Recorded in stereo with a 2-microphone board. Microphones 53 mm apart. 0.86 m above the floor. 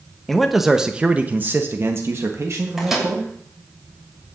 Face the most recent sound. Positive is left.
turn(degrees=-5)  # may be behind; listen again after turning